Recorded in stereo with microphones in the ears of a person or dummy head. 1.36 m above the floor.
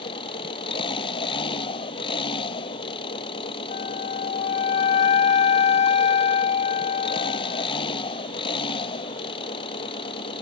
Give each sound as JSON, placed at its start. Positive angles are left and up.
{"t": 0.0, "sound": "an engine running", "side_deg": 35}
{"t": 3.7, "sound": "a flute", "side_deg": 40}